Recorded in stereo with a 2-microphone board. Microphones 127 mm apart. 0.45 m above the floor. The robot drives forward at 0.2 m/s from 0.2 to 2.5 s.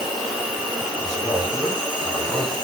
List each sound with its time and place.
0.0 s an insect: 35° right (ahead or behind), 1.9 m; by 2.6 s 45° right (ahead or behind), 1.5 m
1.0 s a man speaking: 25° left (ahead or behind), 1.2 m